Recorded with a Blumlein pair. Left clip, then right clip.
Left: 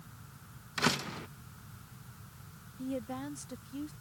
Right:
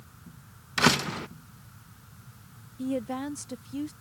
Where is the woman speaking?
20° right.